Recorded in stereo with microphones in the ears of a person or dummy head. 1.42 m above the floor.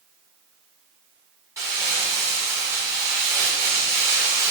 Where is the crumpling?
10° right (ahead or behind), 1.9 m.